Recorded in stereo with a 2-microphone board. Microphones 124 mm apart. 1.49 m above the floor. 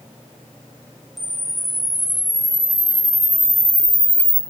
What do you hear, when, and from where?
1.2 s a camera shutter: centre (ahead or behind), 1.9 m